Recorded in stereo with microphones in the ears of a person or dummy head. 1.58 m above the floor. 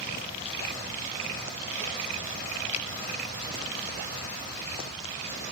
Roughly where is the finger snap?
Left.